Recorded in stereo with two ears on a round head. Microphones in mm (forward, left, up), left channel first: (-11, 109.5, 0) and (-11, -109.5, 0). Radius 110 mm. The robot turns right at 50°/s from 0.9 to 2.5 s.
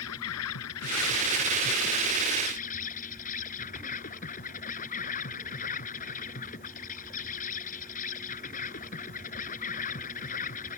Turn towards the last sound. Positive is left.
turn(degrees=145)